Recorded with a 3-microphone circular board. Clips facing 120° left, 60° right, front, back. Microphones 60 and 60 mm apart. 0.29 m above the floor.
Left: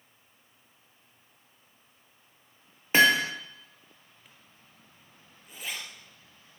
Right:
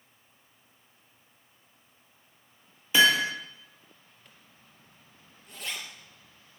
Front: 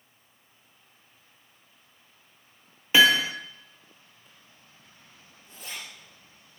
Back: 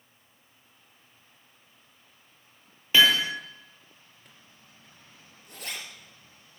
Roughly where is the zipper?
Behind.